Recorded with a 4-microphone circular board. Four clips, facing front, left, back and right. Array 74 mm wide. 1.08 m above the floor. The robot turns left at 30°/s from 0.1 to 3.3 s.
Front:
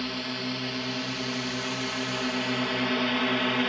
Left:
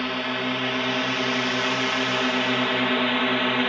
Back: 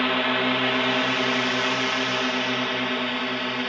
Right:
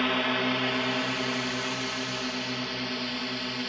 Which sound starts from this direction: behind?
A drone, at 0.0 s.